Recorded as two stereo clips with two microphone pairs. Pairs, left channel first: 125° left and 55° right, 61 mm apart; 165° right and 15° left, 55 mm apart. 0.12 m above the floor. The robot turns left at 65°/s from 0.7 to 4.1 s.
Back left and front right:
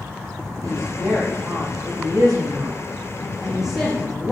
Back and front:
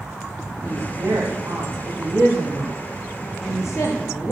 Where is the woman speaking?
55° left, 6 m; by 4.3 s 165° right, 6 m.